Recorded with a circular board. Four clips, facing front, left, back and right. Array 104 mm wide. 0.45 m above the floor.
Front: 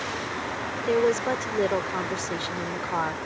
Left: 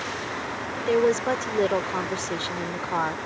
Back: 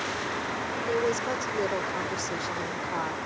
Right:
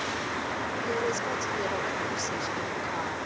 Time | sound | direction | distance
0.9 | a woman speaking | 60° left | ?